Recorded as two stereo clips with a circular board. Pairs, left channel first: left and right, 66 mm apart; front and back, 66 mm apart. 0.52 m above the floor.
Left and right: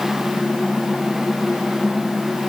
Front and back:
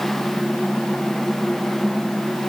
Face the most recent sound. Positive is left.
No sound to turn to.